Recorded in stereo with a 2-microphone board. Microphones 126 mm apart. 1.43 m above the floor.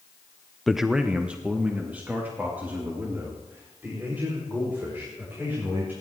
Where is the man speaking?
Centre (ahead or behind), 0.6 m; by 5.9 s 15° right (ahead or behind), 7.5 m.